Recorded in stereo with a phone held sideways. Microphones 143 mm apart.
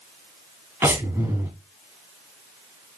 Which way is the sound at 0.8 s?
15° right (ahead or behind).